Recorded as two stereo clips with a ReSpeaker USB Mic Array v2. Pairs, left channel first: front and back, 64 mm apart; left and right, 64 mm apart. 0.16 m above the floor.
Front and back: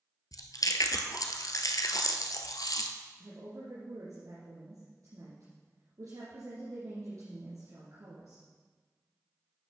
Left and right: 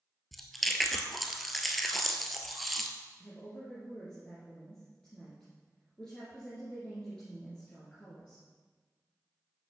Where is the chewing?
5° left, 1.0 m.